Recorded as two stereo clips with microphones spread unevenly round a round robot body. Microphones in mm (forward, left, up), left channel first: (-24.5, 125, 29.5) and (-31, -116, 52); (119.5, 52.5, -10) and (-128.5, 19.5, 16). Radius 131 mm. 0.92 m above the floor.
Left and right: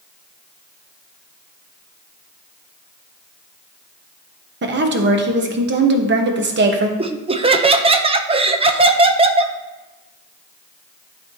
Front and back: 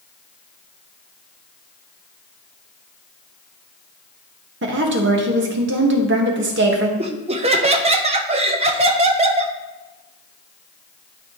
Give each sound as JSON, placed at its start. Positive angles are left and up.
{"t": 4.6, "sound": "a woman speaking", "azimuth_deg": -130, "distance_m": 1.1}
{"t": 7.0, "sound": "laughter", "azimuth_deg": -135, "distance_m": 0.6}